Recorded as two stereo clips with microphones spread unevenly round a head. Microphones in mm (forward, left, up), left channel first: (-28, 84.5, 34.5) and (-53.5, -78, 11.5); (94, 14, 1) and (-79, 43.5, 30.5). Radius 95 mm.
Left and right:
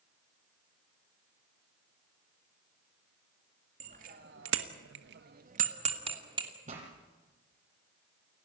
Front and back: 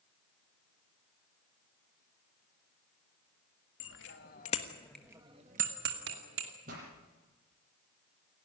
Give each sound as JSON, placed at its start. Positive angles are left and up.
{"t": 3.8, "sound": "a bicycle bell", "azimuth_deg": -40, "distance_m": 2.0}
{"t": 6.7, "sound": "a pop", "azimuth_deg": -145, "distance_m": 7.0}